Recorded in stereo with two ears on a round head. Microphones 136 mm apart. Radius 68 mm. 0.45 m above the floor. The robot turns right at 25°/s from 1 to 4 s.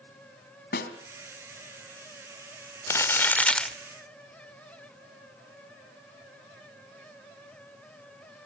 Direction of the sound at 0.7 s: 70° left (ahead or behind).